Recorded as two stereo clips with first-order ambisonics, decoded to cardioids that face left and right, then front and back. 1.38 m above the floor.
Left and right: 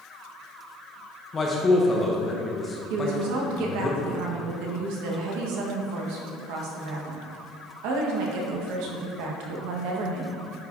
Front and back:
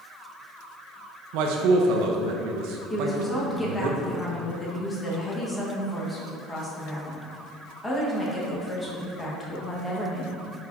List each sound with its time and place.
1.3 s a man speaking: 160° left, 0.8 m
2.9 s a woman speaking: 80° right, 1.4 m